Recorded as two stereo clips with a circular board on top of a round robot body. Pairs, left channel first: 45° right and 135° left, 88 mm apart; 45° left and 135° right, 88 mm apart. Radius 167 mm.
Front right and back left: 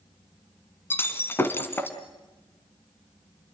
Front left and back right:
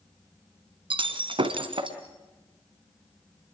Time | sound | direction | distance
0.9 | breaking glass | 110° right | 2 m